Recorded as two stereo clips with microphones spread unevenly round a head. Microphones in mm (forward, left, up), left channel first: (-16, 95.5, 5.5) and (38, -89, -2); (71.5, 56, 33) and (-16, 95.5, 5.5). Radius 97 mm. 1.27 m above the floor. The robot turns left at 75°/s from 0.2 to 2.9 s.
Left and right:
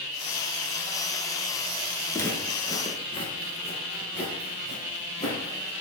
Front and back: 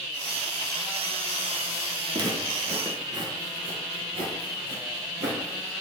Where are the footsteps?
145° left, 1.2 m; by 5.7 s 155° left, 2.5 m.